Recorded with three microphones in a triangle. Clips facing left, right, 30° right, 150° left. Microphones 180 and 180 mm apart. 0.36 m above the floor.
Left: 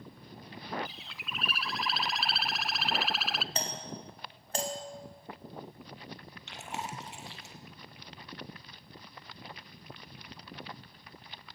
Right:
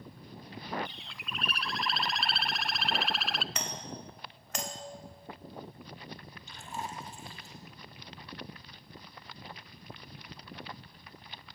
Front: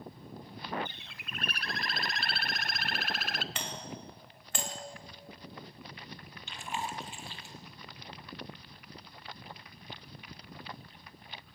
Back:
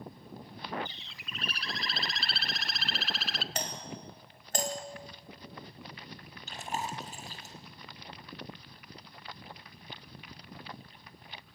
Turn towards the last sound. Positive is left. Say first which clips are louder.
# left 1 dB, back 1 dB
turn(degrees=100)